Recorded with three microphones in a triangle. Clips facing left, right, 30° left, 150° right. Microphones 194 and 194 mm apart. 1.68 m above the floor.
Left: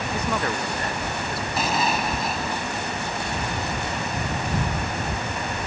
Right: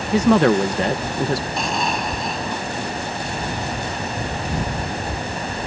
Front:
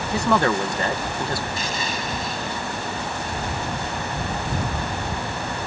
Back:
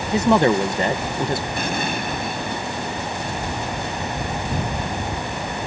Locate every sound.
0.1 s a woman speaking: 80° right
1.6 s an explosion: 175° left